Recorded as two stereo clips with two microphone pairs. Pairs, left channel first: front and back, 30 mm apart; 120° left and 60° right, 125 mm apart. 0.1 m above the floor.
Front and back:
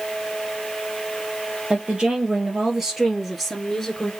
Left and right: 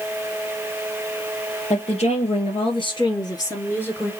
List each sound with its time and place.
1.7 s a woman speaking: 125° left, 2.5 m; by 4.1 s 40° left, 1.7 m